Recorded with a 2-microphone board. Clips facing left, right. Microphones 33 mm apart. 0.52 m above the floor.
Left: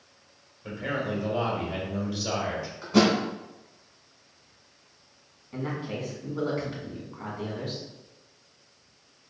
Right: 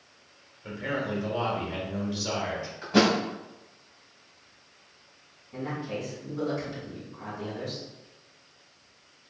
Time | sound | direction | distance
0.6 | a man speaking | 10° right (ahead or behind) | 1.5 m
2.8 | a thud | 20° right (ahead or behind) | 1.6 m
5.5 | a man speaking | 30° left (ahead or behind) | 1.6 m